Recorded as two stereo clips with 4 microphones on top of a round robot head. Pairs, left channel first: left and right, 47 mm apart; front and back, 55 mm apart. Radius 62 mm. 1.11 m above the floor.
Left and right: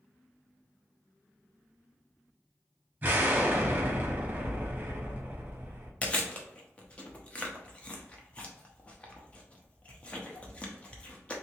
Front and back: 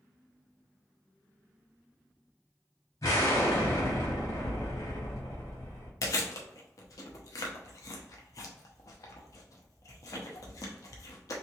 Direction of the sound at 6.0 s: 25° left.